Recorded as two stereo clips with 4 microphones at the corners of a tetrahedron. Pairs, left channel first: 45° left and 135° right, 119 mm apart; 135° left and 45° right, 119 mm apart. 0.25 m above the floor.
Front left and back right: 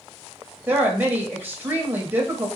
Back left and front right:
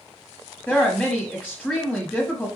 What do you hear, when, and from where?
0.7 s a woman speaking: 175° right, 1.1 m